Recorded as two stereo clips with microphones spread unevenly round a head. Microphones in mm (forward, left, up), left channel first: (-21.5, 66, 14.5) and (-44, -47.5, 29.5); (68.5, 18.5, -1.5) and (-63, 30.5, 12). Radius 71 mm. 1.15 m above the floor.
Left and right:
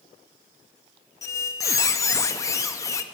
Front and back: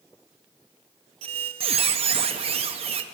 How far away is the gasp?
No gasp in this recording.